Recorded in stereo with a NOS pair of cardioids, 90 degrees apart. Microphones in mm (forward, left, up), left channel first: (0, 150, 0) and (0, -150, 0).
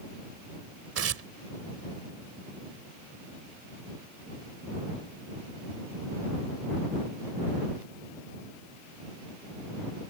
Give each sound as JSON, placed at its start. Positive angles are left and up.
{"t": 0.9, "sound": "tearing paper", "azimuth_deg": -50}